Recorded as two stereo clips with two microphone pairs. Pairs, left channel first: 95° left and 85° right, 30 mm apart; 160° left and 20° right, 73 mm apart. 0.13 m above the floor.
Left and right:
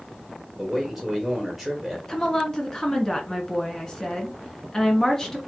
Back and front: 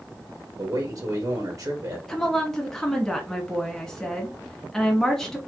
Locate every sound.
0.6 s a man speaking: straight ahead, 2.5 m
2.1 s a woman speaking: 90° left, 1.4 m